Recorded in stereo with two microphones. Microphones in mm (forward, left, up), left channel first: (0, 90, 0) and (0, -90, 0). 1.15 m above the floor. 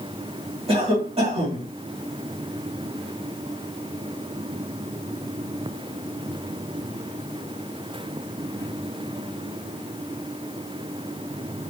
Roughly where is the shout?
I don't hear a shout.